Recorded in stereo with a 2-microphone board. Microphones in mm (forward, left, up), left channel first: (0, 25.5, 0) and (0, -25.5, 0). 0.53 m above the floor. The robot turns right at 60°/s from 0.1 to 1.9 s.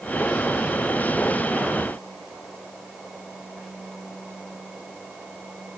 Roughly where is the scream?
No scream in this recording.